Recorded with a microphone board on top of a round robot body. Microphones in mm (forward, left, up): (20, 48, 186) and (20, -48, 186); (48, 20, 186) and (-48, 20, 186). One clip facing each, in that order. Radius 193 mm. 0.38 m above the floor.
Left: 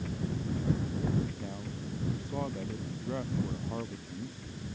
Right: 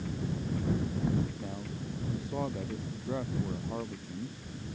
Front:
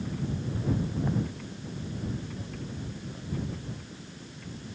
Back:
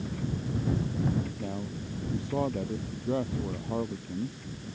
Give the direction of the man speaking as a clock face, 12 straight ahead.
6 o'clock.